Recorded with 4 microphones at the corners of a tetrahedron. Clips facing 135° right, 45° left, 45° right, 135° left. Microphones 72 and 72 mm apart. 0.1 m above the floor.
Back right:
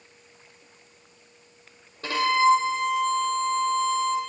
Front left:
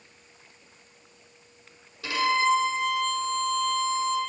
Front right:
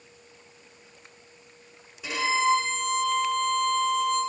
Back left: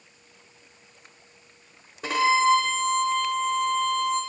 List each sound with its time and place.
2.0 s a violin: 175° left, 0.8 m